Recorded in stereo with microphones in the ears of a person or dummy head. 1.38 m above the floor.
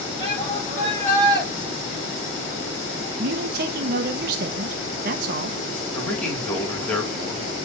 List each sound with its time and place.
0.2 s a shout: 25° left (ahead or behind), 3.5 m; by 1.5 s 5° left (ahead or behind), 4.5 m
3.2 s a man speaking: 60° right (ahead or behind), 1.0 m
5.9 s a man speaking: 10° left (ahead or behind), 2.5 m